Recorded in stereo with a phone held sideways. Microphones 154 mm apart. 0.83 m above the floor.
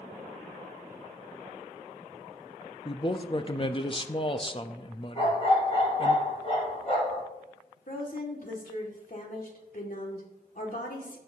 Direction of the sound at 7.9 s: 65° left (ahead or behind).